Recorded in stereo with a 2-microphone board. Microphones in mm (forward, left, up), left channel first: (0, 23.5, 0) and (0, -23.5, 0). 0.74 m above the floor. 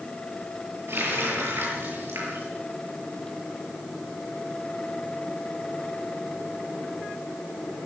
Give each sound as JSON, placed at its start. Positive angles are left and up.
{"t": 0.9, "sound": "a running tap", "side_deg": -60, "distance_m": 9.5}